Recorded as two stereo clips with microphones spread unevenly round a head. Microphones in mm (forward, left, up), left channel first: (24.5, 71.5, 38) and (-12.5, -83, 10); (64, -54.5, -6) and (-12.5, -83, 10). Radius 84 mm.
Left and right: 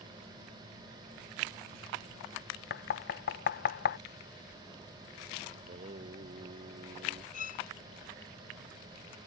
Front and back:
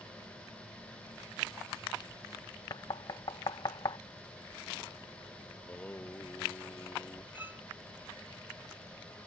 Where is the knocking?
55° left.